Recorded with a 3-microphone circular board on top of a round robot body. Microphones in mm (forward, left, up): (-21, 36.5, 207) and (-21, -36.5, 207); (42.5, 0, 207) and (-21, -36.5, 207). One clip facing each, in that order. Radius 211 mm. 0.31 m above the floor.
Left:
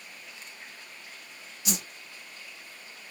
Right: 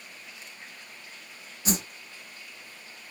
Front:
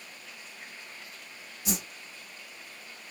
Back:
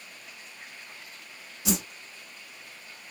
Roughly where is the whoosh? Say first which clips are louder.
Right 5 dB, back 5 dB; behind right.